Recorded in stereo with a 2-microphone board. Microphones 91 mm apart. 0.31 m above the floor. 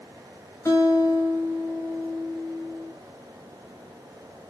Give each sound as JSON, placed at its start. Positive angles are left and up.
{"t": 0.7, "sound": "a guitar", "side_deg": 35, "distance_m": 1.2}